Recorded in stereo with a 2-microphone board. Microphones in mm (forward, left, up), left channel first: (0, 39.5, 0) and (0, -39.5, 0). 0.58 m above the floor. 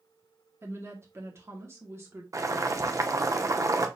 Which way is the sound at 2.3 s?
40° right (ahead or behind).